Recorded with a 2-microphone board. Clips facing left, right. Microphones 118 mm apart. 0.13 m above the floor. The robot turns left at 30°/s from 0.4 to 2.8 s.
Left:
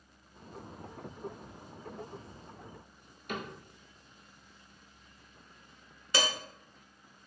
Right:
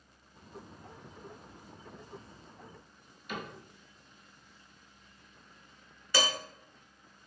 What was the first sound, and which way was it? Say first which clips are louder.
A cupboard door: left 2 dB; 50° left (ahead or behind).